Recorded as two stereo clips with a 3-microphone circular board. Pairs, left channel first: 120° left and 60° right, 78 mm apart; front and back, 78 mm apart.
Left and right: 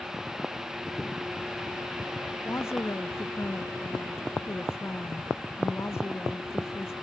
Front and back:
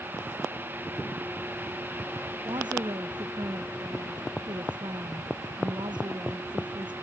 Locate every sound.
2.5 s a woman speaking: 175° left